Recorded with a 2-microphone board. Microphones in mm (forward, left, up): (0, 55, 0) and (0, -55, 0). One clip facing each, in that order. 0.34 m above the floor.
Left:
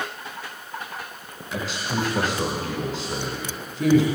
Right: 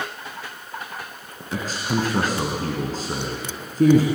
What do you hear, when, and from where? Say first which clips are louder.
1.5 s a man speaking: right 3 dB; 45° right (ahead or behind), 3 m